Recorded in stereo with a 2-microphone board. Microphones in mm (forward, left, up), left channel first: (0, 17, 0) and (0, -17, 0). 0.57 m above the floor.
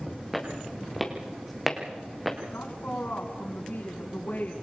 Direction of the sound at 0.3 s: Centre (ahead or behind).